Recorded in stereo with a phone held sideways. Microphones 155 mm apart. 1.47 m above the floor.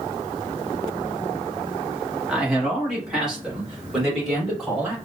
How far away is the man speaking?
About 1.4 m.